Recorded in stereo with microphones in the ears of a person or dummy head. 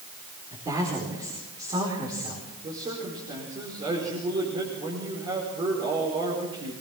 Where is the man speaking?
30° right (ahead or behind), 5 m.